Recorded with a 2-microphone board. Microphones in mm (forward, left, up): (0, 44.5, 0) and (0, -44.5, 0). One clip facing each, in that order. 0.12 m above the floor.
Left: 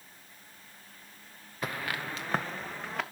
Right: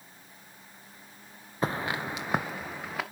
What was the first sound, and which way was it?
Footsteps, 30° right (ahead or behind).